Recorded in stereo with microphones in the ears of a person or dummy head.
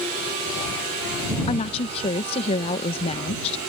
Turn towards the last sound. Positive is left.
turn(degrees=35)  # may be behind; listen again after turning